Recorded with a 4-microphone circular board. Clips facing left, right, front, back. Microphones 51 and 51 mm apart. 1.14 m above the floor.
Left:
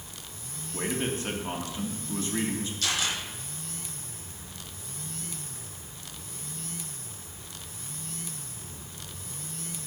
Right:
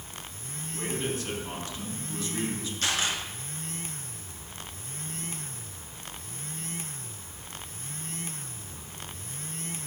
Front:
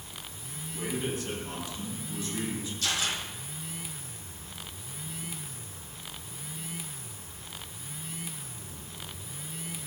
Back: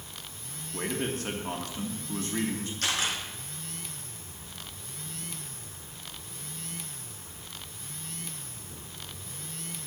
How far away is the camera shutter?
About 4.5 m.